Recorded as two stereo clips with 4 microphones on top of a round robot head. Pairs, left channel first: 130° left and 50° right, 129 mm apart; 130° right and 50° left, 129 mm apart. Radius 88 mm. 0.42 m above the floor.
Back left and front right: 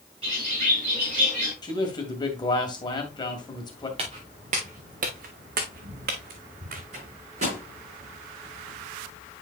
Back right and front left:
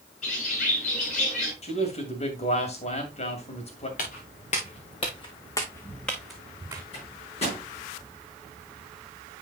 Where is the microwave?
85° right, 6.5 m.